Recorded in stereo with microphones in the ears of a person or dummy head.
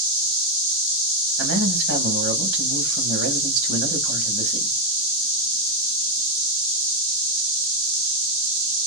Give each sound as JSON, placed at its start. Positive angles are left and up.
{"t": 1.4, "sound": "a man speaking", "side_deg": -75, "distance_m": 1.7}